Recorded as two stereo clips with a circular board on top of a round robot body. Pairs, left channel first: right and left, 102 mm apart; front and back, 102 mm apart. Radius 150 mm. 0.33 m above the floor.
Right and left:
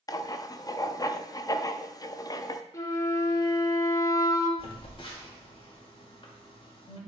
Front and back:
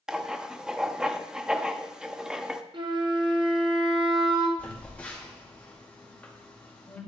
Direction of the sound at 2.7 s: 145° right.